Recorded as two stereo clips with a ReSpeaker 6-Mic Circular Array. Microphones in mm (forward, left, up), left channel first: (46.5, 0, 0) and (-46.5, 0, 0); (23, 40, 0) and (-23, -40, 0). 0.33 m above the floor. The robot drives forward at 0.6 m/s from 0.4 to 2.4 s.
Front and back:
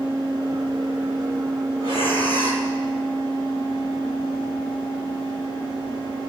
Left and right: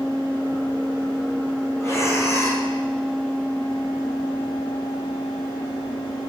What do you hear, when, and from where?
1.8 s breathing: 5° left, 5 m